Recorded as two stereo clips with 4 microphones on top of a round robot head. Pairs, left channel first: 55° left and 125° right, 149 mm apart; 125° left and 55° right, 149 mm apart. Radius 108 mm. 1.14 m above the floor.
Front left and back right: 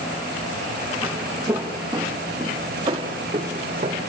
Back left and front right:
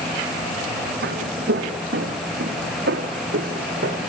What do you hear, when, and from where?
1.0 s footsteps: 45° right, 4 m; by 4.0 s 75° right, 3.5 m